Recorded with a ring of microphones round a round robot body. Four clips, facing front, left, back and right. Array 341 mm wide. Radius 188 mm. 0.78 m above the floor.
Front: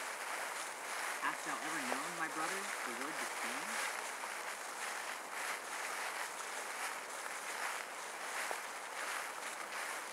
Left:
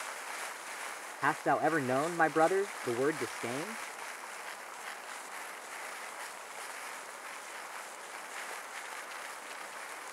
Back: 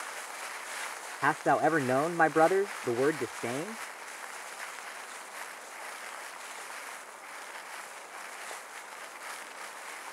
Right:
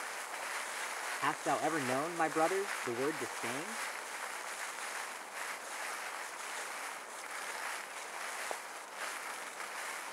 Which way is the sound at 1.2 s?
165° left.